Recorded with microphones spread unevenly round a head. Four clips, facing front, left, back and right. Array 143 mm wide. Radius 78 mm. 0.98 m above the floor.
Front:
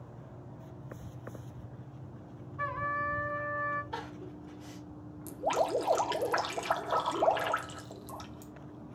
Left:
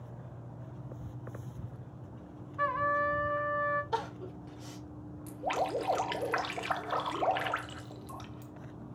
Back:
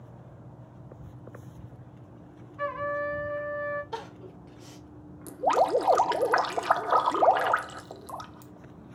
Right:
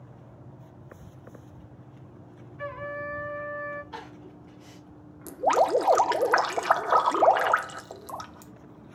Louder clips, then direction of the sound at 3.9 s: Left 6 dB, back 2 dB; 110° left.